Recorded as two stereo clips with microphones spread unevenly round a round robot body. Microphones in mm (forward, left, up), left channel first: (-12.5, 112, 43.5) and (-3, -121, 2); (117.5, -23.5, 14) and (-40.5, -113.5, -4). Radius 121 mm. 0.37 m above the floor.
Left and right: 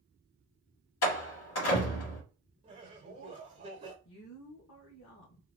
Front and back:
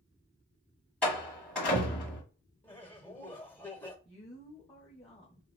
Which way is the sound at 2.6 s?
50° right.